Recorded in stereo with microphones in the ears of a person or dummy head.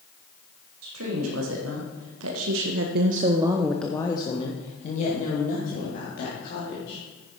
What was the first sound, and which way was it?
A woman speaking, 85° right.